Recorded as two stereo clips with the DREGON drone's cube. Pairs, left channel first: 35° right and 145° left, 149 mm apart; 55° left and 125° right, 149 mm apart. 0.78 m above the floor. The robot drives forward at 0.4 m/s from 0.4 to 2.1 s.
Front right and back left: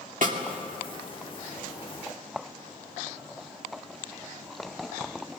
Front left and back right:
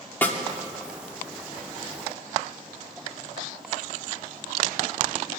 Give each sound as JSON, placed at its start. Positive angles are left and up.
{"t": 0.2, "sound": "a snare drum", "azimuth_deg": 130, "distance_m": 2.0}